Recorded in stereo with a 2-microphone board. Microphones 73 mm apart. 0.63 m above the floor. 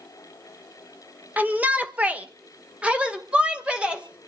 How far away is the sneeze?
I don't hear a sneeze.